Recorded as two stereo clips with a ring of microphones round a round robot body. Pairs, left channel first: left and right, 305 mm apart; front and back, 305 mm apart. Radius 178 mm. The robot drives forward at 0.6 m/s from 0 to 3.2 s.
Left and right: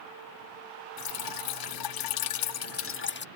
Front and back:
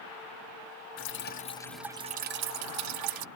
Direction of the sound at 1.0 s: 50° left.